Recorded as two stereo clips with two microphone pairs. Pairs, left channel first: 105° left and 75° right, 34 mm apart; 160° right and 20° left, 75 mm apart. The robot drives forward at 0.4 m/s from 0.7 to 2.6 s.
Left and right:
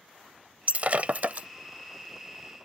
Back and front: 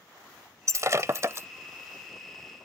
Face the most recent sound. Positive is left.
turn(degrees=-50)